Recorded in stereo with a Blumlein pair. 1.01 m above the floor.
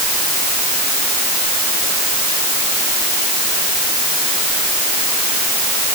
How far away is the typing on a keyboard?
I don't hear typing on a keyboard.